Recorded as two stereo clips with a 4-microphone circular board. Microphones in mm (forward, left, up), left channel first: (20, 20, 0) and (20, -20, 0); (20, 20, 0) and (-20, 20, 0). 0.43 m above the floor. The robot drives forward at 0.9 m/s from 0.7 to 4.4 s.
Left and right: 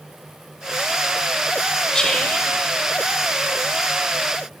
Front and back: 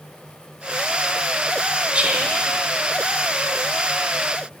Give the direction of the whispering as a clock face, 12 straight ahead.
7 o'clock.